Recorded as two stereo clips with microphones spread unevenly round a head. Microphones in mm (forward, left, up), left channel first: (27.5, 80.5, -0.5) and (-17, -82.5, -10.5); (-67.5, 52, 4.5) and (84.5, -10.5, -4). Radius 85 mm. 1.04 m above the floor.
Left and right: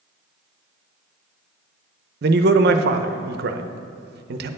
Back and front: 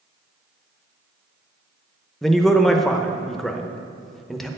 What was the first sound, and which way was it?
A man speaking, 110° right.